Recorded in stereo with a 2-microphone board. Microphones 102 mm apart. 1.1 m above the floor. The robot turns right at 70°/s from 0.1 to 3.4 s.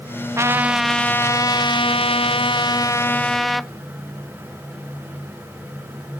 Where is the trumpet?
35° right, 0.5 m; by 3.7 s straight behind, 0.5 m.